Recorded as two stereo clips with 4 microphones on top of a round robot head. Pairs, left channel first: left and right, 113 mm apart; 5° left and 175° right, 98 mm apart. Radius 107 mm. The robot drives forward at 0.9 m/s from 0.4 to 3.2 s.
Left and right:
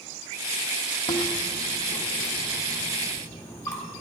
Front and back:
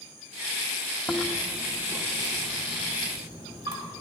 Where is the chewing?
75° left, 0.9 m; by 4.0 s 160° left, 2.0 m.